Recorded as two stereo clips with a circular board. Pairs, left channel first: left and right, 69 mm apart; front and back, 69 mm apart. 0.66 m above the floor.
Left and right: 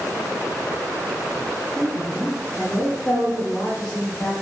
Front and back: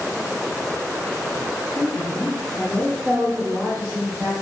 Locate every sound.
1.8 s a woman speaking: 20° left, 1.3 m; by 4.3 s 155° right, 1.4 m